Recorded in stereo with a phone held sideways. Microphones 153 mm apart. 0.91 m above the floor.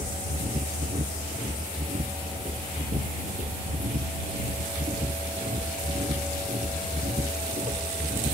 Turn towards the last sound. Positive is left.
turn(degrees=-50)  # may be behind; listen again after turning